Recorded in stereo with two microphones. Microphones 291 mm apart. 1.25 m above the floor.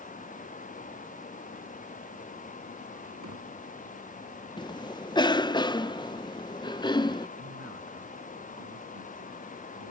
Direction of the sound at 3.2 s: 80° right.